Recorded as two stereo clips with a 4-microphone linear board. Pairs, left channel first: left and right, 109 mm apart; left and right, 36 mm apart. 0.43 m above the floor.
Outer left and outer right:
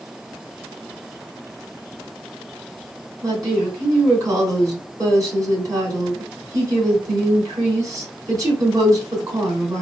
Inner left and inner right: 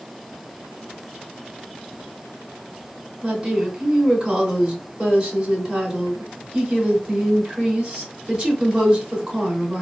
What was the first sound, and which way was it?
A woman speaking, 35° right (ahead or behind).